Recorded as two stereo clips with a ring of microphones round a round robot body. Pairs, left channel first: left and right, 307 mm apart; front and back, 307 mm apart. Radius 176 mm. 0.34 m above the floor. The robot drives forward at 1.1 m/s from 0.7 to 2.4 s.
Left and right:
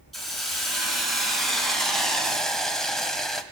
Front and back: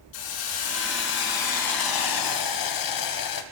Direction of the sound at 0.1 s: Straight ahead.